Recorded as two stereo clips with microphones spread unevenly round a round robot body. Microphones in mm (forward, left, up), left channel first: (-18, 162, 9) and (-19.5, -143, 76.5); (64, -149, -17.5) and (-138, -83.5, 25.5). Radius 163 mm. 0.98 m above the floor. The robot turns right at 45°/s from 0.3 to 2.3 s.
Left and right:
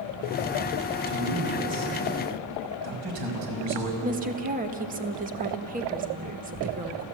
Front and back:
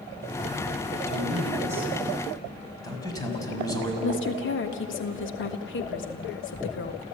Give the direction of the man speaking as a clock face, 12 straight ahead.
5 o'clock.